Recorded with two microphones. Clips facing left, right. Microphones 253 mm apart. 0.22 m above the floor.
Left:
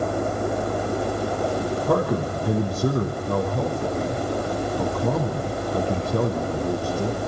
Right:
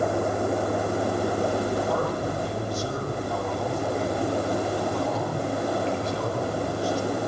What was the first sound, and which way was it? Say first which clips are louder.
A man speaking: left 4 dB; 55° left (ahead or behind).